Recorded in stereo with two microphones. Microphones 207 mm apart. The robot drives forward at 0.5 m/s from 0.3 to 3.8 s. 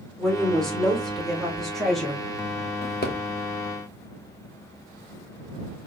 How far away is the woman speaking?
About 0.8 m.